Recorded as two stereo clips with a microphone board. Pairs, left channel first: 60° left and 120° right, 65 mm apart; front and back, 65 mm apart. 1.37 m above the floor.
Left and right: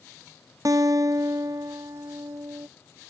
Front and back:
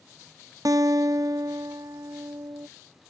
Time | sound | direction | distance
0.7 | a guitar | 150° right | ?